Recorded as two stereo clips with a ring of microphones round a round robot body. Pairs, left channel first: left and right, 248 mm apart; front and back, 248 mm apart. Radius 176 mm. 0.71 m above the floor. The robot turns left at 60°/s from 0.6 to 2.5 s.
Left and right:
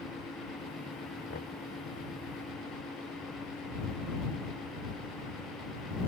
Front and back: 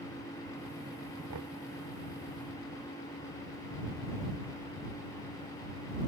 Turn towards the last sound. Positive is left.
turn(degrees=80)